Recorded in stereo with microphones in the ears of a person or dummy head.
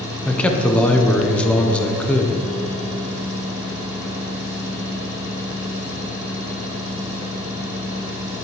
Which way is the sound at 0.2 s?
10° left (ahead or behind).